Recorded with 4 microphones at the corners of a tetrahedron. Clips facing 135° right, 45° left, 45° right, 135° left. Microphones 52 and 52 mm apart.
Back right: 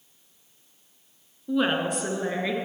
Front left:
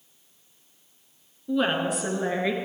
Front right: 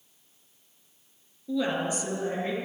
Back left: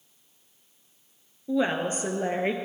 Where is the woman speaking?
150° left, 1.1 m; by 2.5 s 125° left, 1.6 m.